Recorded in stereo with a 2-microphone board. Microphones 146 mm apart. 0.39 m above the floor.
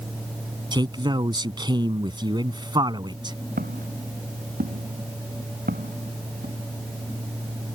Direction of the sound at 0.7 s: 30° right (ahead or behind).